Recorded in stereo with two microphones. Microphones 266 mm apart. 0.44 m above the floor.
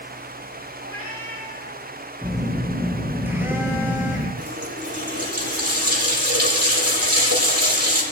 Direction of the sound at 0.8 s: 85° left.